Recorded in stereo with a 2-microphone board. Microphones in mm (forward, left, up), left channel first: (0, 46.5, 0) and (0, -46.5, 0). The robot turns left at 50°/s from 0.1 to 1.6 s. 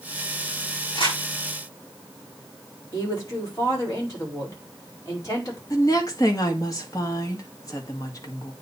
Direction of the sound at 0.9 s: 70° left (ahead or behind).